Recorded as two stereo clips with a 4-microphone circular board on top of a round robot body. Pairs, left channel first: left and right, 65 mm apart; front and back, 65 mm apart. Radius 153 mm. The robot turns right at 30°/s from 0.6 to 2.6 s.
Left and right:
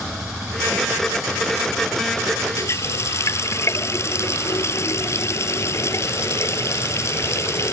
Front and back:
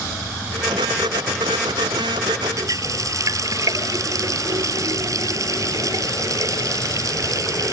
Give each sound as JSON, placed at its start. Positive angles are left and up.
{"t": 2.6, "sound": "a running tap", "azimuth_deg": 140}